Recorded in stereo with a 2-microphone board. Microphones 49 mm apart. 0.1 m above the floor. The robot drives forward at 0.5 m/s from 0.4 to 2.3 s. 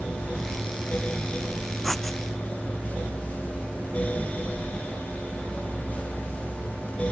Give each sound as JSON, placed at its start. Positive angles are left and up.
{"t": 1.8, "sound": "writing", "side_deg": 5}